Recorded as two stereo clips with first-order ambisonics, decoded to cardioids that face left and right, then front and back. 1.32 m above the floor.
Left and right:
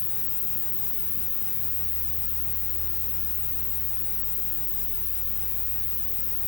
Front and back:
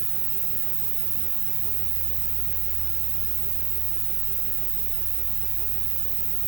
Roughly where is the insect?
Behind.